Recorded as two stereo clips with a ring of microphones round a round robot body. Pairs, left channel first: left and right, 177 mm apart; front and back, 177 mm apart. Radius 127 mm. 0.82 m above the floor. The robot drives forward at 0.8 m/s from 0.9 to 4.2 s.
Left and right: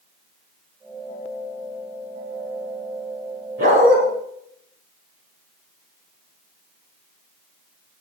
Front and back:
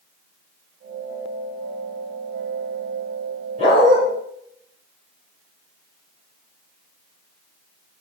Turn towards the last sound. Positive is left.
turn(degrees=-120)